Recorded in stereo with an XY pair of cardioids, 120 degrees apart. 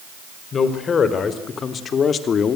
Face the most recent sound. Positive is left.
turn(degrees=45)